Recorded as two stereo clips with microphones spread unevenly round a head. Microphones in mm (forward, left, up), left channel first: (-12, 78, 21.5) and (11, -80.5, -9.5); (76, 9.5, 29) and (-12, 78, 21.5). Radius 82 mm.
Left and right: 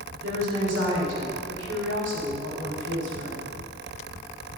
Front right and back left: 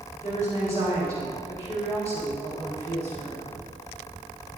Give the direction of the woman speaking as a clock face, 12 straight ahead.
3 o'clock.